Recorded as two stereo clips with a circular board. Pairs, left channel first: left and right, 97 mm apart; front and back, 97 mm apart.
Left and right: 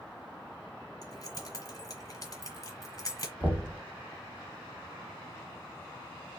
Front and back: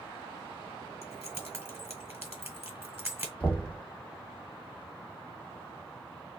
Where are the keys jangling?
125° left, 1.2 m.